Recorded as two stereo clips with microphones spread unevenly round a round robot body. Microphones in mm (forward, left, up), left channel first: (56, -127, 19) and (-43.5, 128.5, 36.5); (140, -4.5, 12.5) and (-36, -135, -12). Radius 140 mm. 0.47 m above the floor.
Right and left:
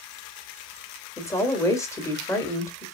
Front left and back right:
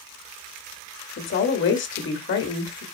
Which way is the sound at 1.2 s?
10° left.